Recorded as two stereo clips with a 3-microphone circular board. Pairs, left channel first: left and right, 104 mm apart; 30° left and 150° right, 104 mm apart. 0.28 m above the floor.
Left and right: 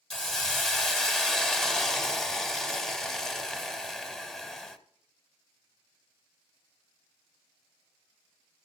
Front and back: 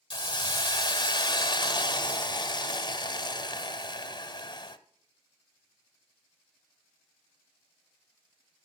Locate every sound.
0.1 s a hiss: 5° left, 0.7 m